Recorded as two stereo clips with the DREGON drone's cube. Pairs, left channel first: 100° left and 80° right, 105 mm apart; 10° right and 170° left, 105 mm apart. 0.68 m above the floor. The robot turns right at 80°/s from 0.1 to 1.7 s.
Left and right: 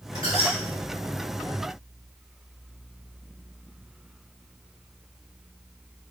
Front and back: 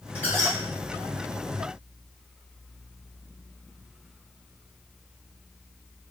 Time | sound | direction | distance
0.1 | a squeak | 60° left | 1.5 m